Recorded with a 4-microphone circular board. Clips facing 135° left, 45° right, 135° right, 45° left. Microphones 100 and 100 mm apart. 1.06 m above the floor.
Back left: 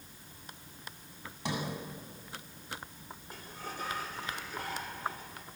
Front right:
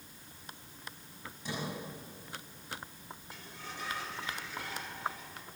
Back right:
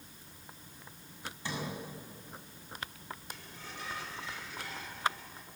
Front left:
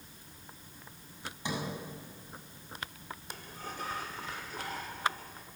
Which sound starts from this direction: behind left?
A sliding door, at 1.4 s.